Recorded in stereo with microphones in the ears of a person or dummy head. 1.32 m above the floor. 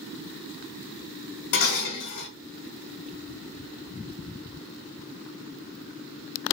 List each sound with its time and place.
1.5 s dishes clattering: 60° left (ahead or behind), 1.0 m